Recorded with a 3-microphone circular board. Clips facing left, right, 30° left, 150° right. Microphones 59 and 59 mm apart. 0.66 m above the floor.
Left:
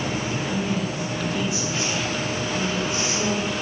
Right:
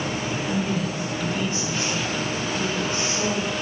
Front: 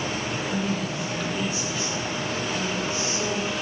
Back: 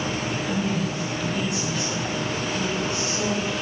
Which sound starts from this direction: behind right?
A woman speaking, at 0.5 s.